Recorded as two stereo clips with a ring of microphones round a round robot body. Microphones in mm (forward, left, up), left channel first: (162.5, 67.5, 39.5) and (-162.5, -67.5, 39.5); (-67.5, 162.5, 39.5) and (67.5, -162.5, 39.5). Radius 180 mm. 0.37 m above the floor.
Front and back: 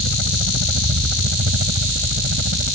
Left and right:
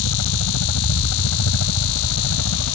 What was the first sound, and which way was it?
A helicopter, 150° left.